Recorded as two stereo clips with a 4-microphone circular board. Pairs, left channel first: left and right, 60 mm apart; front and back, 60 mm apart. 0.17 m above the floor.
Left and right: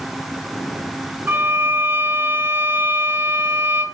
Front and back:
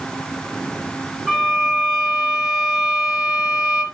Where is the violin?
110° right, 1.8 m.